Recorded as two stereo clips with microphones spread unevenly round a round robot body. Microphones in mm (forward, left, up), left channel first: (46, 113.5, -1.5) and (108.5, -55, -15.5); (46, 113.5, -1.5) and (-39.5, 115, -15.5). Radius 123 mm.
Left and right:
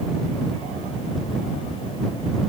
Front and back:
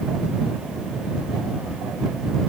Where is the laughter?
I don't hear laughter.